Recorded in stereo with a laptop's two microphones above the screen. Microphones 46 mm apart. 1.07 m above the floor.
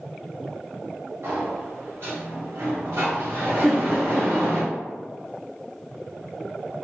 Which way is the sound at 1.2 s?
70° right (ahead or behind).